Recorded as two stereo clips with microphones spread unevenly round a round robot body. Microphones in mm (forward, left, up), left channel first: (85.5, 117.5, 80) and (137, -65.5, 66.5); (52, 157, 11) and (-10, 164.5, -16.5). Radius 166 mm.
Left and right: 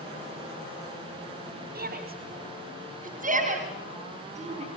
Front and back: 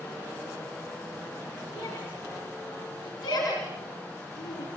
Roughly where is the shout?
Ahead right.